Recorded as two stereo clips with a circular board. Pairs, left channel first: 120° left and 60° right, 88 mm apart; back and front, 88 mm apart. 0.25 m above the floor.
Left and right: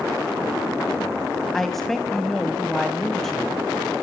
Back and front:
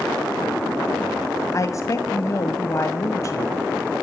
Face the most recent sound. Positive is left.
turn(degrees=-155)